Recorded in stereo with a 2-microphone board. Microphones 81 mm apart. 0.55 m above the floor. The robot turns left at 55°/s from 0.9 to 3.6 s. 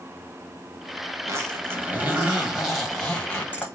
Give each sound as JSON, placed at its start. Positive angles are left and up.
{"t": 1.3, "sound": "a zipper", "azimuth_deg": -100, "distance_m": 1.2}